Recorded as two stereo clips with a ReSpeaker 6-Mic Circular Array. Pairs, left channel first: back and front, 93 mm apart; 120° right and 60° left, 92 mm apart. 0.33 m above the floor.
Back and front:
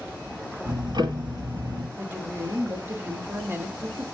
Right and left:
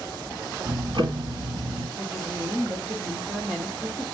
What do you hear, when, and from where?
0.7 s ticking: 35° left, 1.3 m
2.0 s a woman speaking: 5° left, 0.9 m